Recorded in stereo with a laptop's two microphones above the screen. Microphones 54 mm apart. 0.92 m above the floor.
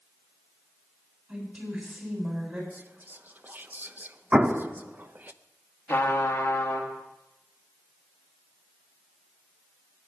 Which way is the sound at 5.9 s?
40° left (ahead or behind).